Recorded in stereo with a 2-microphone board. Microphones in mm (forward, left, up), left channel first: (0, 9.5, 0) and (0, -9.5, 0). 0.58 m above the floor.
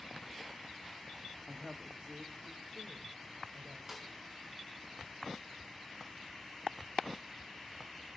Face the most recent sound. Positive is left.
turn(degrees=-10)  # may be behind; listen again after turning